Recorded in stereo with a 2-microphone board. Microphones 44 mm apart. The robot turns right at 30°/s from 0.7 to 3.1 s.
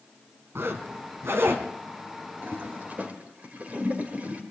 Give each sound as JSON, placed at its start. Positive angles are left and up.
{"t": 0.6, "sound": "a zipper", "side_deg": -70, "distance_m": 1.7}
{"t": 2.4, "sound": "a toilet flushing", "side_deg": -60, "distance_m": 2.0}